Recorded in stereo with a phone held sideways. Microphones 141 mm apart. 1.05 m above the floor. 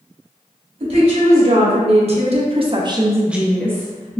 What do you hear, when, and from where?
0.8 s a woman speaking: 45° right (ahead or behind), 1.9 m; by 4.2 s 25° left (ahead or behind), 0.9 m